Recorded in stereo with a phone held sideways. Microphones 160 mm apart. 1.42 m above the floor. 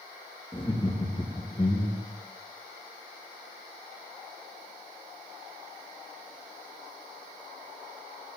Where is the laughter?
30° left (ahead or behind), 3 m; by 2.1 s 35° left (ahead or behind), 1.5 m.